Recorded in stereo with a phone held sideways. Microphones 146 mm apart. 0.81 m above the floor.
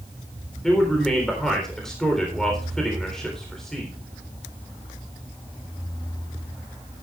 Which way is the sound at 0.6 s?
5° left (ahead or behind).